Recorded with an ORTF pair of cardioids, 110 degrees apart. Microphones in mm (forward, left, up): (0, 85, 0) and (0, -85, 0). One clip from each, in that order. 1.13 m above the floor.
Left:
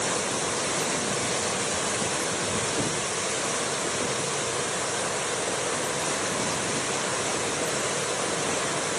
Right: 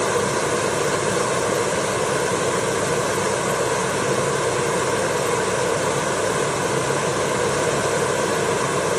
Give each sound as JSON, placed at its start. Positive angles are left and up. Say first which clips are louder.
{"t": 0.0, "sound": "a fan", "louder": "right 7 dB", "azimuth_deg": -65}